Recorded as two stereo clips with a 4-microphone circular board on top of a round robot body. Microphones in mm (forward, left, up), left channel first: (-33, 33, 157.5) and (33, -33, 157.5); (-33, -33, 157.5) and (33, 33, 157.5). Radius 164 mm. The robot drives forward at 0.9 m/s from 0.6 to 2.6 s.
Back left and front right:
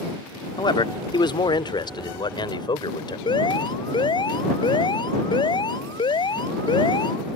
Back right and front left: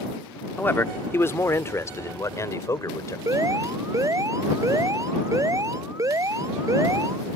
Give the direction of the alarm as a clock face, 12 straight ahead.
9 o'clock.